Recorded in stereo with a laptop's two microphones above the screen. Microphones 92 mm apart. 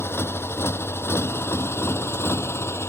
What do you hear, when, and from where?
0.0 s a motorcycle: 25° left (ahead or behind); by 2.9 s 30° left (ahead or behind)